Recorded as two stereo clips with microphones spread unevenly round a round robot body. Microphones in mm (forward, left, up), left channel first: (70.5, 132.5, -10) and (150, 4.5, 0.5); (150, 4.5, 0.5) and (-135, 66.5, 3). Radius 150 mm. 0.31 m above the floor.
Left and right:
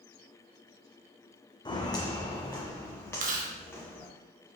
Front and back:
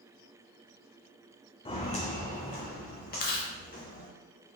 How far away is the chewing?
About 0.7 m.